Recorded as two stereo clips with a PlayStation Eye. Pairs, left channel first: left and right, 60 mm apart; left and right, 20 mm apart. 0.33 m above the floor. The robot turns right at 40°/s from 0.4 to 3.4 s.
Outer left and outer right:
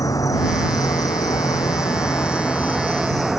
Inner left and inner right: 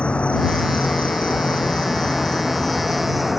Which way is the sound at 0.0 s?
65° left.